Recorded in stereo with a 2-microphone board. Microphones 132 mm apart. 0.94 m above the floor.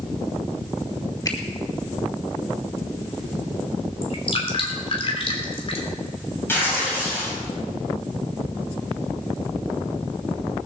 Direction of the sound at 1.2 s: 30° left (ahead or behind).